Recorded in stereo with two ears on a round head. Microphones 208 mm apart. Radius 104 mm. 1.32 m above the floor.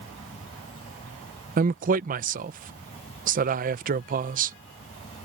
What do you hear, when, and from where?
0.0 s an insect: 25° left (ahead or behind)
1.6 s a man speaking: 35° right (ahead or behind)